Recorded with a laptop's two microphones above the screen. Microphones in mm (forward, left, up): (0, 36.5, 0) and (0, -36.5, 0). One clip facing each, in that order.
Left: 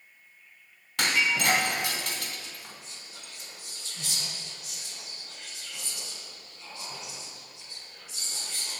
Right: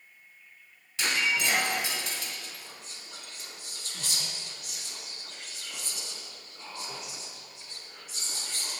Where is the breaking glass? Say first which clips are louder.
Left 2 dB; 65° left (ahead or behind), 1.8 m.